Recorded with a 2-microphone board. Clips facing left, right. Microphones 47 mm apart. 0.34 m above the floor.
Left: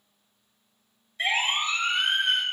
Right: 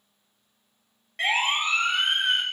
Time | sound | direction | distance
1.2 | a siren | 70° right (ahead or behind) | 5 m